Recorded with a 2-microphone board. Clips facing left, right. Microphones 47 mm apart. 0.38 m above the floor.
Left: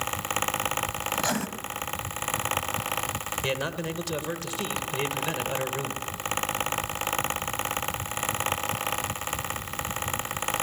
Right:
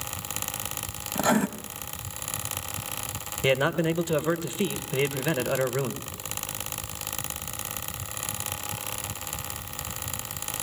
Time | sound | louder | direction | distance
1.1 | writing | right 7 dB | 15° right (ahead or behind) | 1.2 m
3.4 | a man speaking | right 9 dB | 20° right (ahead or behind) | 1.3 m